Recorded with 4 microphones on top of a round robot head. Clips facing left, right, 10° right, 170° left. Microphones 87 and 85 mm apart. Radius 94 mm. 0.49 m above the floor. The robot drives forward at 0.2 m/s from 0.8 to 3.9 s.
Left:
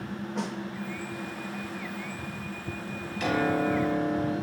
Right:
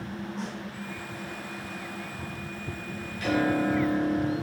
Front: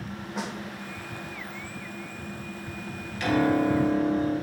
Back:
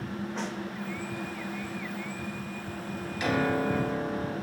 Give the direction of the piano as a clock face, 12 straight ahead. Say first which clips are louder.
Right 1 dB, front 4 dB; 9 o'clock.